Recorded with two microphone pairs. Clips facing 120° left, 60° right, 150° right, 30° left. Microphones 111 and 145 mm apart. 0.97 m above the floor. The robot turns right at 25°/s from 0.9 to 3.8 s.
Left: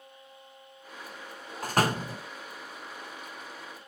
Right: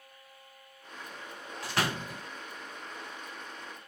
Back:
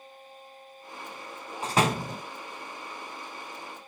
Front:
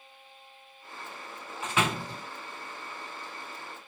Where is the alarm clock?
No alarm clock in this recording.